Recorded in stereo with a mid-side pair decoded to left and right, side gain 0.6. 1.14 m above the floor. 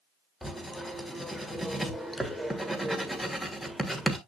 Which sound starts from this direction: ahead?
Writing, at 0.4 s.